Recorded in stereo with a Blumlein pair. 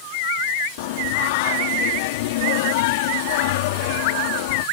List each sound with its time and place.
0.8 s singing: 50° left